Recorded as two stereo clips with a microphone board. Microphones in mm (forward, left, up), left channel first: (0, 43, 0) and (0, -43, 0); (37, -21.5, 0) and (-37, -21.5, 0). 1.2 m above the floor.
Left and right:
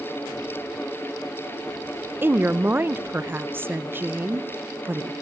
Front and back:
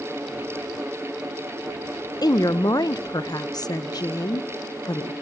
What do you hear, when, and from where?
2.2 s a woman speaking: 25° right, 0.7 m